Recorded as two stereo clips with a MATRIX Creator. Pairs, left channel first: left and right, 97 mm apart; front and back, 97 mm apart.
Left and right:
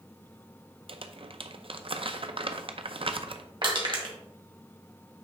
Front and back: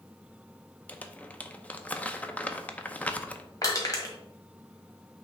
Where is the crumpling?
75° right, 0.5 m.